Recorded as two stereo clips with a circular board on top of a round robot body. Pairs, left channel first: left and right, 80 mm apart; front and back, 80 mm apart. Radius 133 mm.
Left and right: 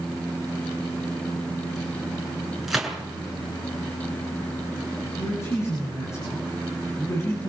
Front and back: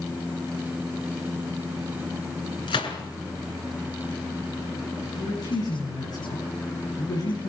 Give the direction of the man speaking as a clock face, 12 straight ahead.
11 o'clock.